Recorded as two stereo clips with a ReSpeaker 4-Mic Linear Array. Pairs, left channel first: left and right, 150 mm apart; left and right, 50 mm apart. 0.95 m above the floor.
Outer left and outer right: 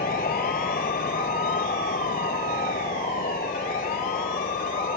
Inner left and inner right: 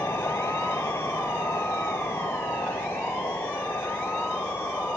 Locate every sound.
0.0 s a vehicle: 85° left